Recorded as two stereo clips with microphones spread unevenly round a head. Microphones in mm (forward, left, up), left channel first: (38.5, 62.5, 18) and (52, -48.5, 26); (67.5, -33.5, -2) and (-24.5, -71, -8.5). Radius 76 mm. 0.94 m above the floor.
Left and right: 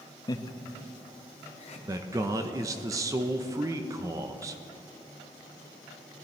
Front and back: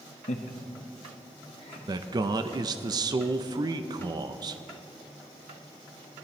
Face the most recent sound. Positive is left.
turn(degrees=-140)